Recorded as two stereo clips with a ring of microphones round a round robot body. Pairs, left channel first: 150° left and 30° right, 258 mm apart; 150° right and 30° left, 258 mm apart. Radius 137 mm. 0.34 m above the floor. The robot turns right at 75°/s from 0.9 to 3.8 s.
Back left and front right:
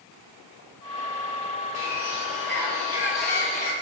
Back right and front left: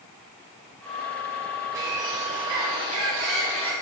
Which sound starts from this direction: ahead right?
A bird, at 1.8 s.